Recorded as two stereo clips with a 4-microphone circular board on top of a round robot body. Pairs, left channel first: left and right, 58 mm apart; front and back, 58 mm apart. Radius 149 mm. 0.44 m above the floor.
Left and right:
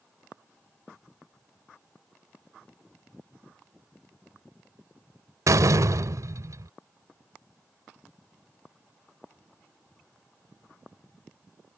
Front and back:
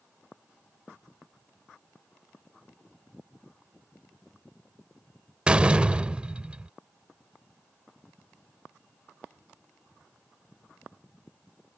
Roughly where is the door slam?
Right.